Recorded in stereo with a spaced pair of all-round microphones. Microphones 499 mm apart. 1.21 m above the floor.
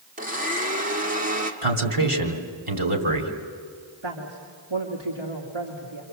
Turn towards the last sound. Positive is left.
turn(degrees=-65)  # may be behind; listen again after turning